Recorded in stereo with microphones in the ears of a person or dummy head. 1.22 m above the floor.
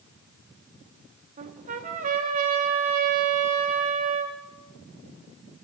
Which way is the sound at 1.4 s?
45° right (ahead or behind).